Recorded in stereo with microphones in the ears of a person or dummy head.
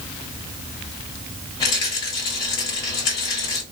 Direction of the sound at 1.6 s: 30° left (ahead or behind).